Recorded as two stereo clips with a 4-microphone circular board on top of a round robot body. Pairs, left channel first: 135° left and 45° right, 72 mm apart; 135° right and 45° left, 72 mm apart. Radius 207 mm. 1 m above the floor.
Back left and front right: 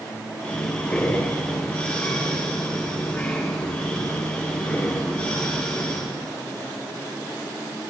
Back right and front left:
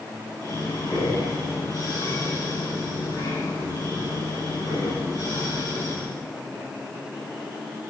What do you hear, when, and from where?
0.4 s breathing: 150° right, 7 m